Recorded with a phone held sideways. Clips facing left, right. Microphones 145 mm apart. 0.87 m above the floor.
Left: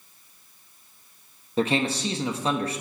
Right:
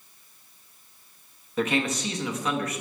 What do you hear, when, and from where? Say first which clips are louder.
1.6 s a man speaking: left 2 dB; 30° left (ahead or behind), 0.7 m